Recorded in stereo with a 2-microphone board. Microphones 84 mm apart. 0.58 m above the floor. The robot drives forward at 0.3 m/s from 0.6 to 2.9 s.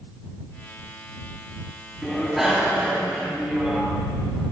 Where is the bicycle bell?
5° right (ahead or behind), 3.5 m.